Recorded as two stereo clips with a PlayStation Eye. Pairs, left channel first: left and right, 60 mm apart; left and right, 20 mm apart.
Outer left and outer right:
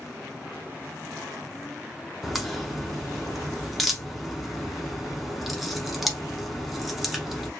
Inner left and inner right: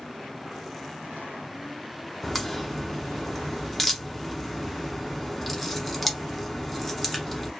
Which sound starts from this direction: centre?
A crack, at 2.2 s.